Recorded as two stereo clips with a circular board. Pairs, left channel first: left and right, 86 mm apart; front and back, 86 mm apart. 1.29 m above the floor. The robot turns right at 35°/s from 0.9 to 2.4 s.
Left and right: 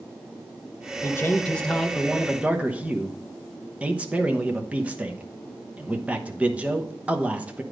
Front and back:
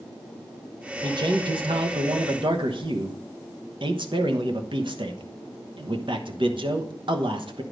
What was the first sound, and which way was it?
A man speaking, 150° left.